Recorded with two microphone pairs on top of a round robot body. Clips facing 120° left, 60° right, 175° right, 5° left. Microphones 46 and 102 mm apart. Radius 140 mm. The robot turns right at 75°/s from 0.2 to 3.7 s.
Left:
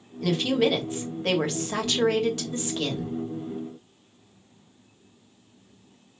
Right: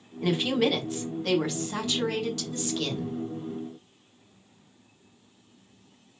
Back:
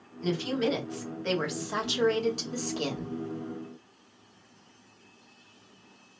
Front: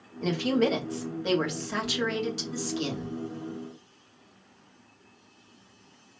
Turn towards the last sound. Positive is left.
turn(degrees=-95)